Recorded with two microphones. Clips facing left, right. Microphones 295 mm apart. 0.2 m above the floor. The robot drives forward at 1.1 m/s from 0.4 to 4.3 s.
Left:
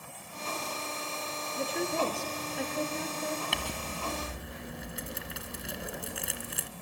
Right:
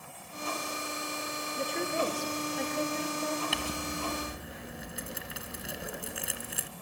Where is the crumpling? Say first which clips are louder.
Right 3 dB; centre (ahead or behind), 1.2 m.